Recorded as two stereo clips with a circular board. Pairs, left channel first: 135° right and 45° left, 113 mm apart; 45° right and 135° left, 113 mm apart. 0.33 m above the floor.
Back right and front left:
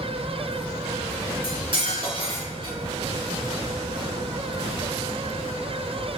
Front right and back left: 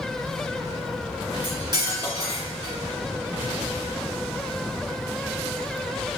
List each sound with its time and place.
1.4 s cutlery clinking: 85° left, 2.5 m